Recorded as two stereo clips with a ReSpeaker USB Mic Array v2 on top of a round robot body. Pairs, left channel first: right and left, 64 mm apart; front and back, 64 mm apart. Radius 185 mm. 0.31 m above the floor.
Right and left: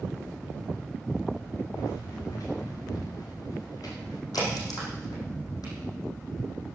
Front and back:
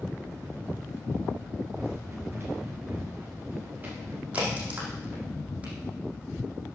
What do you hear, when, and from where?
1.7 s running footsteps: 130° right, 5 m; by 4.2 s 115° right, 5.5 m
4.3 s a crack: 115° right, 7 m